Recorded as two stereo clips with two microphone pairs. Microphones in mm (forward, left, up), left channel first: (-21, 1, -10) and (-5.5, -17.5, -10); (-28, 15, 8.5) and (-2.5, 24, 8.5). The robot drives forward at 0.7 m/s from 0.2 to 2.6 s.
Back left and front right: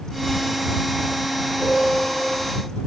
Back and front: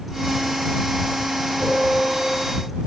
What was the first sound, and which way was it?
A piano, 95° right.